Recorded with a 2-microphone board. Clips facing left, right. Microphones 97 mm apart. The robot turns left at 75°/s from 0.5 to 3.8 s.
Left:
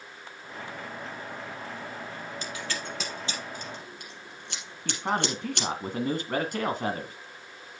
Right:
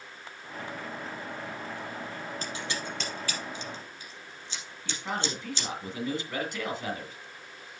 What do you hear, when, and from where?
2.4 s scissors: 40° right (ahead or behind), 3.5 m; by 5.7 s 60° left (ahead or behind), 3.5 m
4.8 s a man speaking: 50° left (ahead or behind), 2 m